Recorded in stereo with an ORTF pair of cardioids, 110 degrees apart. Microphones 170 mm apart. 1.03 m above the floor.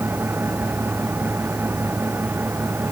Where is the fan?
10° right.